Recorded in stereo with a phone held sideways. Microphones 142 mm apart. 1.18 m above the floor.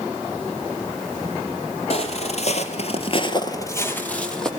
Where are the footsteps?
45° left (ahead or behind), 2.5 m; by 4.5 s 5° left (ahead or behind), 3 m.